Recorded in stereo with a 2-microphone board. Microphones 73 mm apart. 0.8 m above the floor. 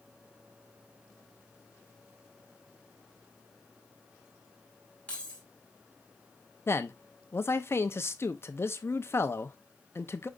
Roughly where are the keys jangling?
Centre.